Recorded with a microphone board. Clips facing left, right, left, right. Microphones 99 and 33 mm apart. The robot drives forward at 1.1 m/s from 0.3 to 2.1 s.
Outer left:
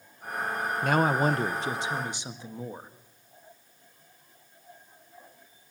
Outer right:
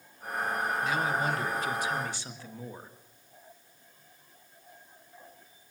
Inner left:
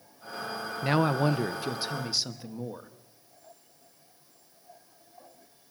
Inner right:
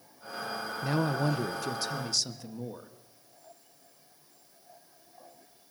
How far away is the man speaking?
About 0.6 m.